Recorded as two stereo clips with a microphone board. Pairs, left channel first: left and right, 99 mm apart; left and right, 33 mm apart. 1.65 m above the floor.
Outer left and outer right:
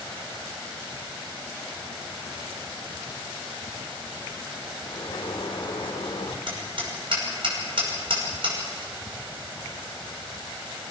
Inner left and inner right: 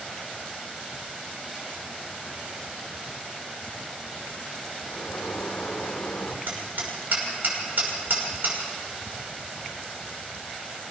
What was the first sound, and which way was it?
A sliding door, 60° left (ahead or behind).